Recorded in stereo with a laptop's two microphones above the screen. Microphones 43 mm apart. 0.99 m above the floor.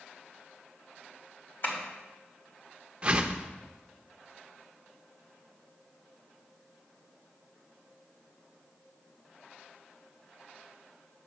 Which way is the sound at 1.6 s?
60° left (ahead or behind).